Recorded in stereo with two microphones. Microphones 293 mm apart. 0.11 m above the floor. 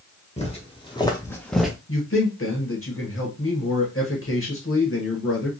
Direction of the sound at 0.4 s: 20° left (ahead or behind).